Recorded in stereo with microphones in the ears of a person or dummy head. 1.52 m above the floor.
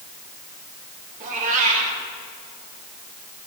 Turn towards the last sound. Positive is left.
turn(degrees=-40)  # may be behind; listen again after turning